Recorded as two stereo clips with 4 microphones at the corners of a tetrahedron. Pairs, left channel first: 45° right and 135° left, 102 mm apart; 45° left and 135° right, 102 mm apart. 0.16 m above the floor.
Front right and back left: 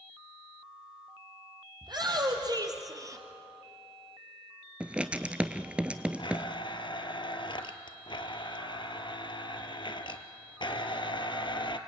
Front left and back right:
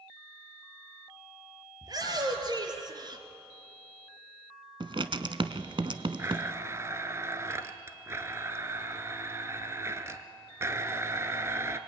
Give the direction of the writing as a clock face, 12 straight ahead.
5 o'clock.